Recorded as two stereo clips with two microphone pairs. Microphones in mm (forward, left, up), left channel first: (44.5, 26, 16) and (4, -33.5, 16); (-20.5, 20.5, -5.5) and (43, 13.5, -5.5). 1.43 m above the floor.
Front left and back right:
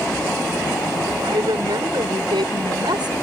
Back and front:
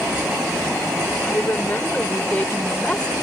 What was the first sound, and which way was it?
A woman speaking, 130° right.